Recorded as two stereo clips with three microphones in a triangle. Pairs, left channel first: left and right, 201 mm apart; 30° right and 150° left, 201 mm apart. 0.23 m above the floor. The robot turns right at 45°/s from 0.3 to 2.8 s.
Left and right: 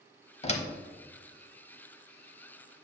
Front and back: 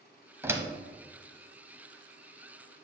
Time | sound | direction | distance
0.4 | a door slam | 85° left | 0.7 m